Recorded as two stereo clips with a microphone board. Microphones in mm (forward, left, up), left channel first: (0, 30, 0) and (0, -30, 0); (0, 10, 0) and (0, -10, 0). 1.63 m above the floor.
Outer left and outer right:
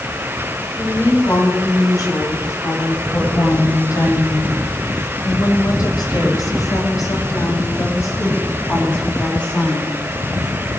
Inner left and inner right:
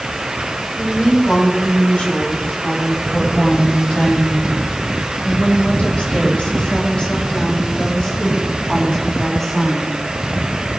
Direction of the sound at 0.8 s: 65° left (ahead or behind).